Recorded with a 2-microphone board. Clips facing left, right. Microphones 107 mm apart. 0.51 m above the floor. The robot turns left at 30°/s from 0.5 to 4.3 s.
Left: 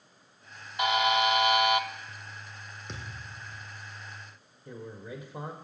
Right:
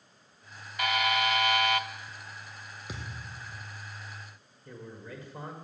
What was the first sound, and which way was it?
A buzzer, 20° left (ahead or behind).